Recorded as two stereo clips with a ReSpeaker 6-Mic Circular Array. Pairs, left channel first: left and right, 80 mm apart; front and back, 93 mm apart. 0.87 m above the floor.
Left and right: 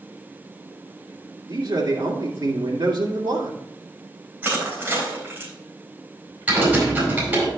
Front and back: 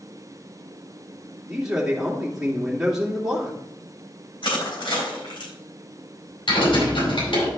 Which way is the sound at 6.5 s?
20° right.